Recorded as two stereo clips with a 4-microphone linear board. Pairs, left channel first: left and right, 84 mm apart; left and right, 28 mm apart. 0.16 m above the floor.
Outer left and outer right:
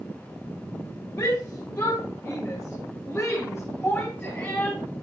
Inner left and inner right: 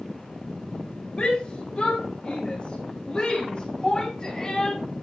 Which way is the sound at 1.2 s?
50° left (ahead or behind).